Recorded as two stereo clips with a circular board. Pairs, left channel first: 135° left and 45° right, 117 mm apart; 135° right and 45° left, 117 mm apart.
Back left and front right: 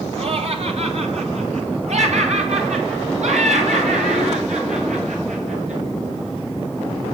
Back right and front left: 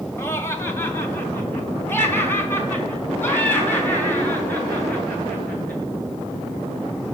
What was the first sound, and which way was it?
Laughter, 70° right.